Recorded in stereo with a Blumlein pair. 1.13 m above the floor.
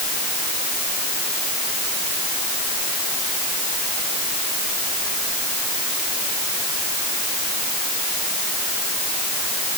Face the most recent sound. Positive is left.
No sound to turn to.